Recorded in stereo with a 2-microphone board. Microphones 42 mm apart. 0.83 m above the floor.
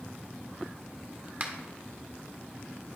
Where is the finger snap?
45° right (ahead or behind), 1.3 m.